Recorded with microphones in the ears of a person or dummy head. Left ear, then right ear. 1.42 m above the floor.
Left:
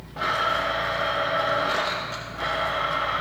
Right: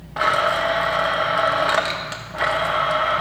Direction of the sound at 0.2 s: 25° right (ahead or behind).